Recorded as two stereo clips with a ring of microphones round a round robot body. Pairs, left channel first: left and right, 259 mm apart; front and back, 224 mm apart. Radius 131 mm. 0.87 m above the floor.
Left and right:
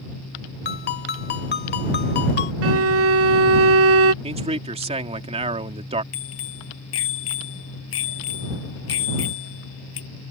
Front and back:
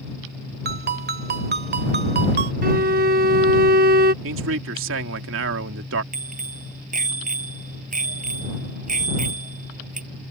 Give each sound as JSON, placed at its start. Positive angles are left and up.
{"t": 0.7, "sound": "a ringtone", "azimuth_deg": 140}
{"t": 2.6, "sound": "a violin", "azimuth_deg": -125}
{"t": 4.2, "sound": "a man speaking", "azimuth_deg": -155}
{"t": 6.1, "sound": "a bicycle bell", "azimuth_deg": 130}